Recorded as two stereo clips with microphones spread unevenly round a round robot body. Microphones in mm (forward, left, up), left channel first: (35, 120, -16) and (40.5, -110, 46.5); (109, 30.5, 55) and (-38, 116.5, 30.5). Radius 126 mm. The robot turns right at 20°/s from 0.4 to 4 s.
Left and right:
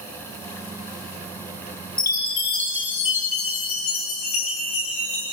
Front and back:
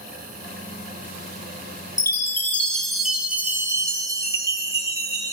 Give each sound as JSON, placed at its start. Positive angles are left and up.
{"t": 2.0, "sound": "a chime", "azimuth_deg": 40, "distance_m": 5.5}